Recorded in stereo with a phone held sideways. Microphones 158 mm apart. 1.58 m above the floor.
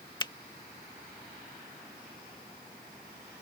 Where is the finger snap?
25° left (ahead or behind).